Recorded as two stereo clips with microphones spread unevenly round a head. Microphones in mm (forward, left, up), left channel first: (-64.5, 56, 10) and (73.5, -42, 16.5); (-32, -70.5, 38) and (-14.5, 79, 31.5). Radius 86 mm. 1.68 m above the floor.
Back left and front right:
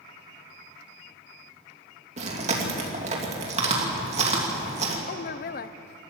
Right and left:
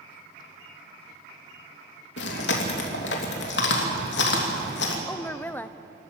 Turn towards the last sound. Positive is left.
turn(degrees=-175)